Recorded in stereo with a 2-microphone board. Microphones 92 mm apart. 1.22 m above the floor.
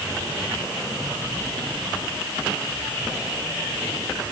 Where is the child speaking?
No child speaking in this recording.